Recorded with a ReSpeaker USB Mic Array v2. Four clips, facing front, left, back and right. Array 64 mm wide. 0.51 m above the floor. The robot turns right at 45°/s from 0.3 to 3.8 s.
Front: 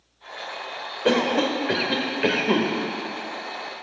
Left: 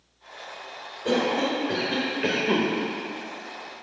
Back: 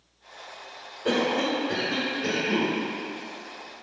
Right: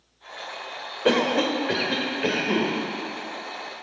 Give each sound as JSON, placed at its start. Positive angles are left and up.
{"t": 1.1, "sound": "a cough", "azimuth_deg": -50, "distance_m": 1.4}